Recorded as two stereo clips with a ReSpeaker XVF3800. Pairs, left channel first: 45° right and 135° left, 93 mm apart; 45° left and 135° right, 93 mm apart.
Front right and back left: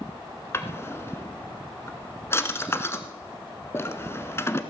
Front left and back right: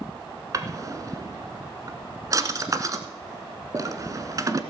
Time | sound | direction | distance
0.5 | a drawer | 95° right | 1.1 m